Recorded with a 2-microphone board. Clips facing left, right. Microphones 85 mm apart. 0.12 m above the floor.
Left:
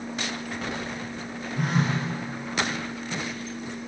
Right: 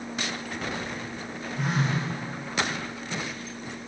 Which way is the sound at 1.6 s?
50° left (ahead or behind).